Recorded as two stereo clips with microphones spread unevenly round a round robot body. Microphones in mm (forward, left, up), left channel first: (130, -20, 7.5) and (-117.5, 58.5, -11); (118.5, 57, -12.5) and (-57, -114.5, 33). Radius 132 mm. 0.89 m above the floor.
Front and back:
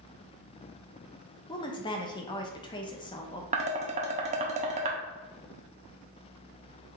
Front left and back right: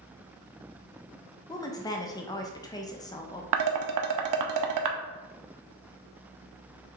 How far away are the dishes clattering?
About 0.6 m.